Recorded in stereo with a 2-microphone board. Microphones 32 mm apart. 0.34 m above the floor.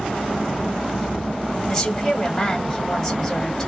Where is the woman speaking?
10° left (ahead or behind), 2 m.